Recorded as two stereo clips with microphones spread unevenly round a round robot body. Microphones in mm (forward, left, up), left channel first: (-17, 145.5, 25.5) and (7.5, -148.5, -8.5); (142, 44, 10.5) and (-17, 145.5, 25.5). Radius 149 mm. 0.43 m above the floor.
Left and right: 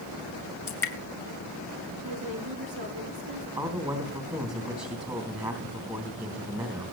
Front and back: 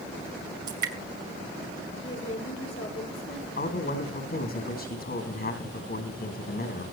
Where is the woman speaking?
75° right, 5.5 m.